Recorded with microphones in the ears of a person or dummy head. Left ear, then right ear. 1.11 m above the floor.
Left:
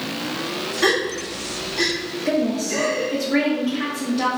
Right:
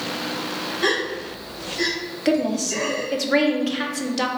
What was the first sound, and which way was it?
A gasp, 30° left (ahead or behind).